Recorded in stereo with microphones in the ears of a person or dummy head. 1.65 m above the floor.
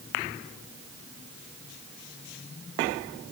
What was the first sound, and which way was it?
Only background noise.